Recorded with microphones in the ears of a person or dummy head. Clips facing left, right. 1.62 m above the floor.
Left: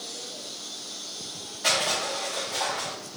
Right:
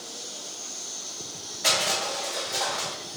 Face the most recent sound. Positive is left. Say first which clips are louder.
# even
turn(degrees=0)  # may be behind; listen again after turning